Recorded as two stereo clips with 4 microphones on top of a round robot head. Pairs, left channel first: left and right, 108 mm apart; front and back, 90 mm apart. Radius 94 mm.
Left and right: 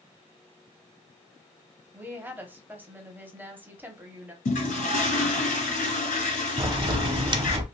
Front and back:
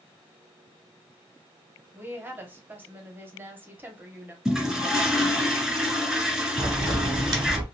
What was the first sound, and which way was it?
A woman speaking, 145° right.